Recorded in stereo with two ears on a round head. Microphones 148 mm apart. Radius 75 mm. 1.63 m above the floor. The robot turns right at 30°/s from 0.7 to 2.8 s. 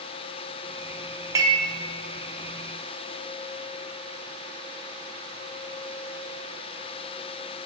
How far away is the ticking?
I don't hear ticking.